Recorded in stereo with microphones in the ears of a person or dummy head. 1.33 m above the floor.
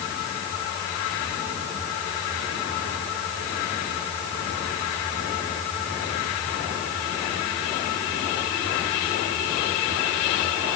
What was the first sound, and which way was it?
Only background noise.